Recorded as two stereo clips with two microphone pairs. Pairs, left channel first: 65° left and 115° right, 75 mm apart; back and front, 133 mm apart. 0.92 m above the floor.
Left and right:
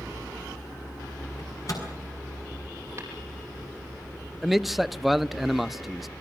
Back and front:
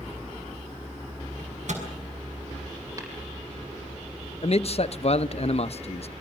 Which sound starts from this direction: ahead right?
Tapping, at 3.0 s.